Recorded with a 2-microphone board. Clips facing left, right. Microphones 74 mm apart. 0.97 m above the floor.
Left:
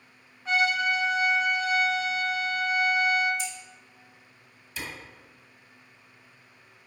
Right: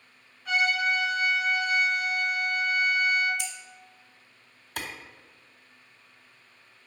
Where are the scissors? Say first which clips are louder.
Left 2 dB; 65° right (ahead or behind), 0.8 m.